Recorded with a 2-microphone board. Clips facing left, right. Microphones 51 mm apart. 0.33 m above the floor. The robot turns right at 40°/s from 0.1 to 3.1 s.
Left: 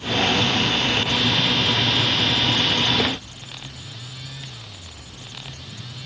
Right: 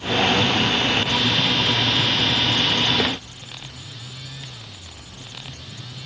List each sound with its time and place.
Only background noise.